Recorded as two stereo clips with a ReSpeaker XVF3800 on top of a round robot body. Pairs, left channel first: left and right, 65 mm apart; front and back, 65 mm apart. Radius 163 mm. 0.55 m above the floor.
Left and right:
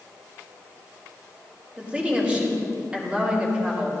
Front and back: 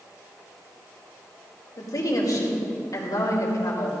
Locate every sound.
1.8 s a woman speaking: 20° right, 3 m